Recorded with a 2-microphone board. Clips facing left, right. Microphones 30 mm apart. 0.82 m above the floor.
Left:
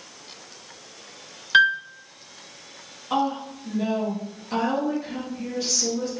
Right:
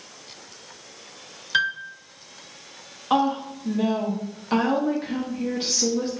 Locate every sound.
1.5 s a piano: 25° left (ahead or behind), 0.5 m
3.1 s a woman speaking: 40° right (ahead or behind), 0.9 m